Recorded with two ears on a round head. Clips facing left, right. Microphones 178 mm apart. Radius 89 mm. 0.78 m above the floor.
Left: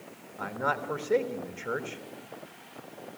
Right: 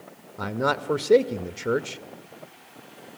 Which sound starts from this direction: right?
A man speaking, at 0.4 s.